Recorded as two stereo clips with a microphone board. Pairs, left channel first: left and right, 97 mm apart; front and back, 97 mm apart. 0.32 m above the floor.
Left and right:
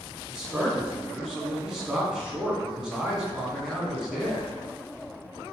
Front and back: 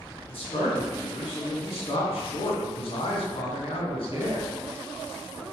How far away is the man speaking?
About 2.5 m.